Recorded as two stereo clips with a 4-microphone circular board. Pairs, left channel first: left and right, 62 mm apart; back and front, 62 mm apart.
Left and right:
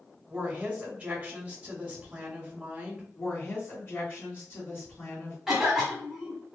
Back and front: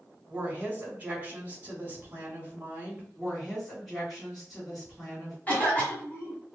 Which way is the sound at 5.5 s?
165° right.